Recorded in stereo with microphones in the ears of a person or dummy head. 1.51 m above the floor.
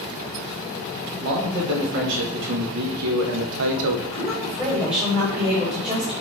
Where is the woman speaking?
30° right (ahead or behind), 3.5 m.